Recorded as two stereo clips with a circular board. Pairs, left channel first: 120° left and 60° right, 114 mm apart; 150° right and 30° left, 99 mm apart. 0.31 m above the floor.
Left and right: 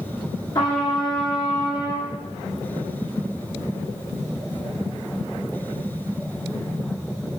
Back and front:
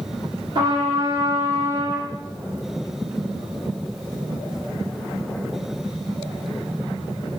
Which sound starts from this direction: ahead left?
A trumpet, at 0.6 s.